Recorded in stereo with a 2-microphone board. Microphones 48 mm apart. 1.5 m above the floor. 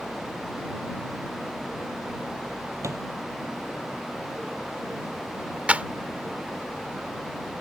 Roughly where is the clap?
Right.